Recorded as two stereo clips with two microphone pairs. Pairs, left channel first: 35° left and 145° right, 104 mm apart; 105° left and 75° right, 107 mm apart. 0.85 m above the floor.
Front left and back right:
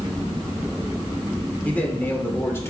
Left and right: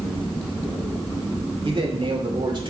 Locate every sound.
1.6 s a man speaking: 40° right, 2.5 m; by 2.7 s 30° right, 2.5 m